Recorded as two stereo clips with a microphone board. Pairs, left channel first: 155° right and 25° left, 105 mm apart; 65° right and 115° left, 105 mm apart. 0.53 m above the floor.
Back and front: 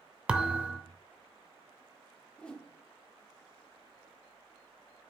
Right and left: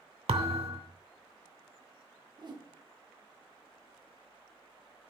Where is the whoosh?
125° left, 0.9 m.